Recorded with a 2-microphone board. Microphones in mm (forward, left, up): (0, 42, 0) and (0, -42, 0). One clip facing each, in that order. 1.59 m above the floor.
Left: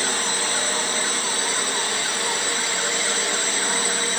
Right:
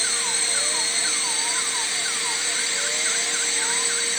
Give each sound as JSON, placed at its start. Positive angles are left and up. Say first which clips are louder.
{"t": 0.0, "sound": "a drone", "louder": "left 5 dB", "side_deg": 60}